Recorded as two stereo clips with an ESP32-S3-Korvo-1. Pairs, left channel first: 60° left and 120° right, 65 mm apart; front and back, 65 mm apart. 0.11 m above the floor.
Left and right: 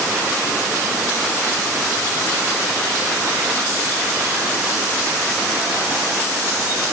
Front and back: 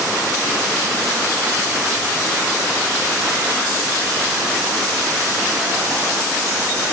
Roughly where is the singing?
I don't hear singing.